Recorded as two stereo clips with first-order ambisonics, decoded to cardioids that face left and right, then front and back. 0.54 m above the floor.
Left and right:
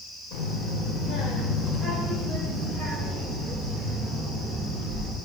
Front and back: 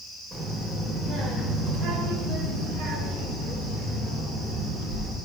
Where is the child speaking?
105° left, 1.6 m; by 5.2 s 160° right, 3.5 m.